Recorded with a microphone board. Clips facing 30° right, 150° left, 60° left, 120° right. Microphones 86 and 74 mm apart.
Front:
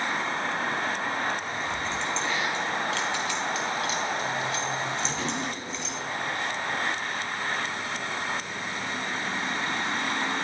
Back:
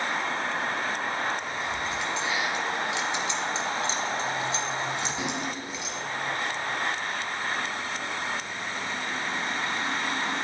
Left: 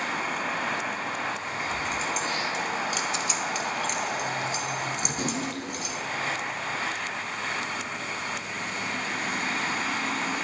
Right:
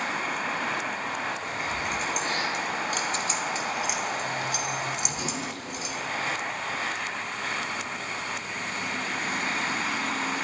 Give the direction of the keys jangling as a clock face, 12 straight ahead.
4 o'clock.